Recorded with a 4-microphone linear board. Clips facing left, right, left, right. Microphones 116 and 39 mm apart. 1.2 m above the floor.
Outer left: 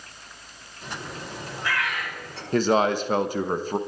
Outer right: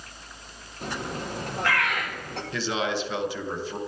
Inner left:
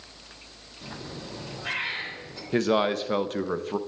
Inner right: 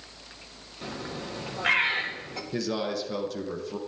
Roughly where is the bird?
Right.